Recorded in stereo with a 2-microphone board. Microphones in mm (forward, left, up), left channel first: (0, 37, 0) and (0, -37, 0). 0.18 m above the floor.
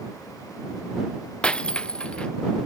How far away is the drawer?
No drawer in this recording.